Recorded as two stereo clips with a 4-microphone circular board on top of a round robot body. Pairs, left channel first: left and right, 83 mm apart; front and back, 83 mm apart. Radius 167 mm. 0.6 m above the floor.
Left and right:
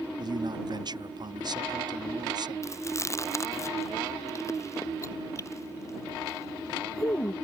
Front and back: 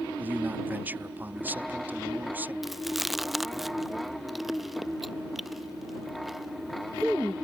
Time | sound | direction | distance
0.2 | a man speaking | 115° right | ?
2.6 | chewing | 95° left | ?